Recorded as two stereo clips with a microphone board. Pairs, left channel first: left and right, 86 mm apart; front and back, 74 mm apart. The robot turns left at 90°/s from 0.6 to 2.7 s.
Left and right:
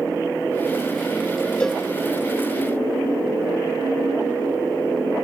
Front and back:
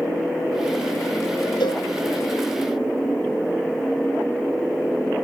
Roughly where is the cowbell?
Ahead.